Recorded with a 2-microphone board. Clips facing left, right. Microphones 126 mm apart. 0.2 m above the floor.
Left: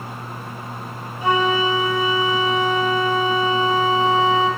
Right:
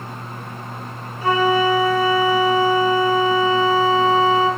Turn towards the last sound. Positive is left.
turn(degrees=20)  # may be behind; listen again after turning